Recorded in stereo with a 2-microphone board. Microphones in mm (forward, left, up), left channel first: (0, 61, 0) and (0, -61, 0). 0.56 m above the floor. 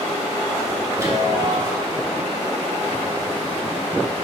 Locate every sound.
0.9 s a chime: 25° right (ahead or behind), 2.5 m